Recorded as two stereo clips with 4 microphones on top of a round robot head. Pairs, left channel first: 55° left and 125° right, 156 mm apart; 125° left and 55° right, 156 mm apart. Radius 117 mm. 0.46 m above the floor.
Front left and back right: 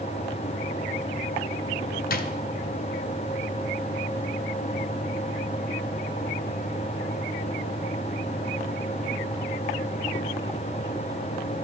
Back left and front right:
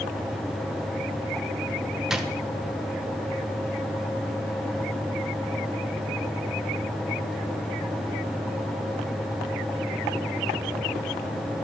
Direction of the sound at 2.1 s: 35° left.